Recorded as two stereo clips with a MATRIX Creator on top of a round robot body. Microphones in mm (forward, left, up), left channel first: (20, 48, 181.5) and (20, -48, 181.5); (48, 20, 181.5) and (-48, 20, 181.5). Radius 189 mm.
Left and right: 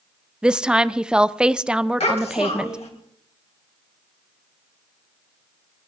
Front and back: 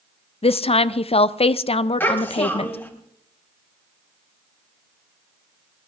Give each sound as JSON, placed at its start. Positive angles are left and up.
{"t": 0.4, "sound": "a woman speaking", "azimuth_deg": -10, "distance_m": 0.7}
{"t": 2.0, "sound": "a child speaking", "azimuth_deg": 70, "distance_m": 3.5}